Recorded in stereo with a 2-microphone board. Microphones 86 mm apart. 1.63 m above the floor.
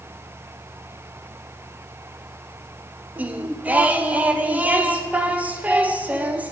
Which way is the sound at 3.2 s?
20° right (ahead or behind).